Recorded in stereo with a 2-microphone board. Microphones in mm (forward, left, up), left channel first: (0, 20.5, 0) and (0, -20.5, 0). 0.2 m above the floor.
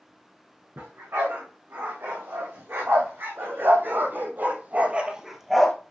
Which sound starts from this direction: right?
A dog barking, at 0.8 s.